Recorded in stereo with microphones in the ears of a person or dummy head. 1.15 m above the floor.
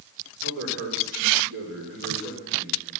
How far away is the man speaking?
About 4 m.